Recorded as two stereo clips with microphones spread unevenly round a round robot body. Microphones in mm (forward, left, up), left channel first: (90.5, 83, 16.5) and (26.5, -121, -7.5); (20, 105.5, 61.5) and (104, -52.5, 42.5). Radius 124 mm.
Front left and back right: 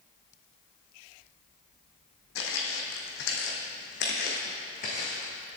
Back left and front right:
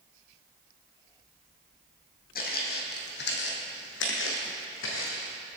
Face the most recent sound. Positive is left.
turn(degrees=135)